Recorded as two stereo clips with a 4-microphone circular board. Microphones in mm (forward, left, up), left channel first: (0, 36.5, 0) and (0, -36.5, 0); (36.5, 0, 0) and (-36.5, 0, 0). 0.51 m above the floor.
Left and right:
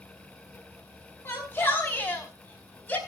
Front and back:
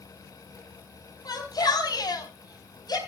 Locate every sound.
1.2 s a shout: 35° left, 5 m; by 3.0 s 25° left, 4 m